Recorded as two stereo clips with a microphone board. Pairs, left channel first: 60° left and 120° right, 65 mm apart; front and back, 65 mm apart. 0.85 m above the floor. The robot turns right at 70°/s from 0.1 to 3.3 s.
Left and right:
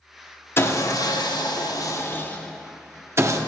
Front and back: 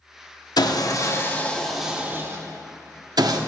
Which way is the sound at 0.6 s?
5° left.